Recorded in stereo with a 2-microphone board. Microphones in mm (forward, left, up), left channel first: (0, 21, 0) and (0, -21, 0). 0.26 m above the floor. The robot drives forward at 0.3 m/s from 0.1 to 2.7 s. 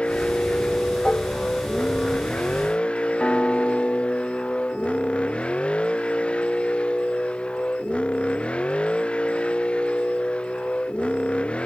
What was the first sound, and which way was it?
A vehicle, 30° left (ahead or behind).